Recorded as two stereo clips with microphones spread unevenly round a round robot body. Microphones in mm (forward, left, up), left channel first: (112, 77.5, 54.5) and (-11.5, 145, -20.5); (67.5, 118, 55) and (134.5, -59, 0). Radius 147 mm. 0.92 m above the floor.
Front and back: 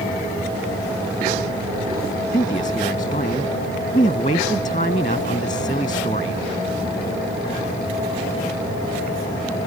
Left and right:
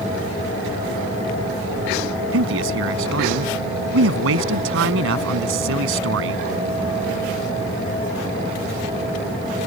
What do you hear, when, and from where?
2.3 s a man speaking: 95° right